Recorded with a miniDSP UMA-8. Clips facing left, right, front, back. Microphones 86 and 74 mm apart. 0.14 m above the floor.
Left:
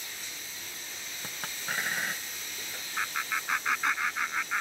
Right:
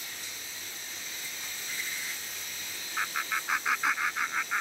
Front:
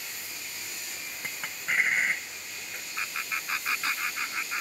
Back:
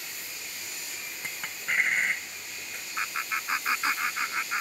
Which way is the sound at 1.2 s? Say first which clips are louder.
Left 8 dB, even; 85° left.